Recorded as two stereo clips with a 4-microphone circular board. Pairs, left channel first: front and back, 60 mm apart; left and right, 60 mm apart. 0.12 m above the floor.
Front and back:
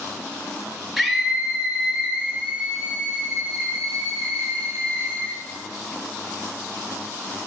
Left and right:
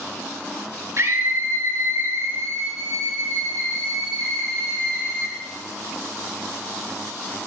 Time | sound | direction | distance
1.0 | a scream | 95° right | 2.5 m